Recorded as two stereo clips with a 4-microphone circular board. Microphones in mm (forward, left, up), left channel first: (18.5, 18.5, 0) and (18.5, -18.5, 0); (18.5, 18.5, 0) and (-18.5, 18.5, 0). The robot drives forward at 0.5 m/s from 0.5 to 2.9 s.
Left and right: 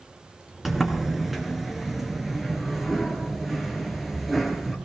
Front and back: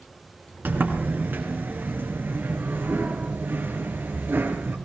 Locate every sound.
0.7 s a sliding door: 170° right, 3 m; by 4.8 s 175° right, 4 m